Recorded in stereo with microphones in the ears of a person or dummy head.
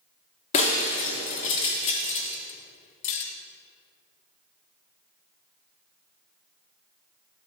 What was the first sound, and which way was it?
Breaking glass, 35° left (ahead or behind).